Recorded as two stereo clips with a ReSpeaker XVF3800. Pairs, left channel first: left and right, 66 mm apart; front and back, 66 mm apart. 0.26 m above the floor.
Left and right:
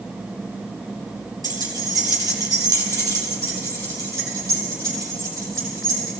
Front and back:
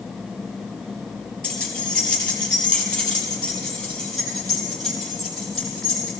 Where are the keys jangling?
75° right, 3 m; by 6.2 s 80° right, 6 m.